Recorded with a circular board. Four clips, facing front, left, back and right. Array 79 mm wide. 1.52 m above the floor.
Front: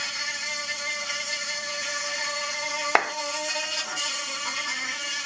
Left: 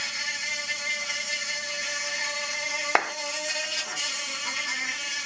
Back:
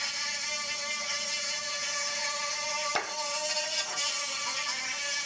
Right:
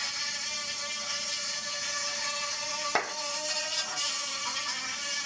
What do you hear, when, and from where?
0.0 s an insect: 45° left, 3 m
3.0 s a clap: 30° left, 0.6 m